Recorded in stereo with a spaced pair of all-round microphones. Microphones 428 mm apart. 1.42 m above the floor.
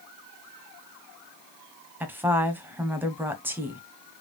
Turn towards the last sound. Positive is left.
turn(degrees=-5)  # may be behind; listen again after turning